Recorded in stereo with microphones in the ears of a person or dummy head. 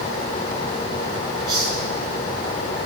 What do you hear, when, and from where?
1.5 s a hiss: 10° left (ahead or behind), 7 m